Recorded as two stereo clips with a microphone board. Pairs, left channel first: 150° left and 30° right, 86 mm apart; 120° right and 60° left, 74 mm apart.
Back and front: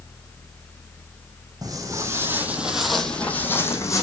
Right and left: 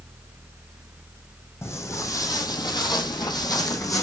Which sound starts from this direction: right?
Footsteps, at 1.6 s.